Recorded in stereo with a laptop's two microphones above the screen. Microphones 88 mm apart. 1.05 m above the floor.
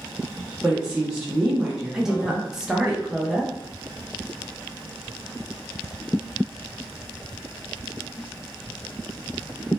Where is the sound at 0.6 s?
10° right (ahead or behind), 0.6 m.